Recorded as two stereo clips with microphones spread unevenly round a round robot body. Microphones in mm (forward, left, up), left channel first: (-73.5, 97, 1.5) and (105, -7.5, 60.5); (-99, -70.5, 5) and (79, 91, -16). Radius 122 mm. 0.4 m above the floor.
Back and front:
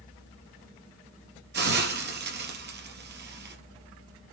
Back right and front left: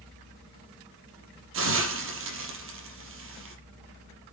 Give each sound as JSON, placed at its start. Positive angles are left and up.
{"t": 1.5, "sound": "a hiss", "azimuth_deg": 5, "distance_m": 4.5}